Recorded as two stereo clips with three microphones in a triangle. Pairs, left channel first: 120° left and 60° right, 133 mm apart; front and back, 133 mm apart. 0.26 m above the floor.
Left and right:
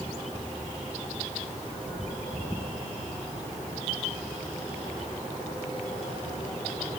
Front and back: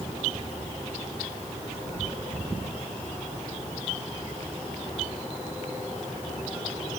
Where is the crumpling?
No crumpling in this recording.